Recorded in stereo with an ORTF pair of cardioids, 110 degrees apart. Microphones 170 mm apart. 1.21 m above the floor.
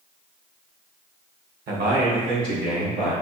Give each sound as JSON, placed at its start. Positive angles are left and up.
{"t": 1.7, "sound": "a man speaking", "azimuth_deg": -65, "distance_m": 1.3}